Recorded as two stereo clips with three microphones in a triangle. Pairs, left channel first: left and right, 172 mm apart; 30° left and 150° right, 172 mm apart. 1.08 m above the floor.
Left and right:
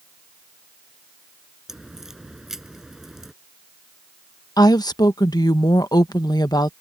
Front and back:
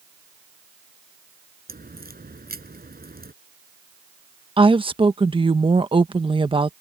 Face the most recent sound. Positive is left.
turn(degrees=155)